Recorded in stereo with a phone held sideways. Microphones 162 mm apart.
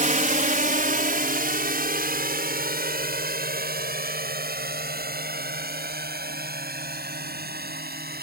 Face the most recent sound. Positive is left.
turn(degrees=-75)  # may be behind; listen again after turning